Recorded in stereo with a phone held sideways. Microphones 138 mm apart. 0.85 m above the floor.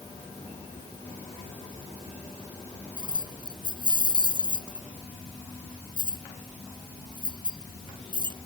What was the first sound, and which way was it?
Keys jangling, 35° right (ahead or behind).